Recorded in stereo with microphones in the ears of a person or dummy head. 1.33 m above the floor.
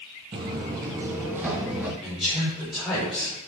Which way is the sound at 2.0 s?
5° left (ahead or behind).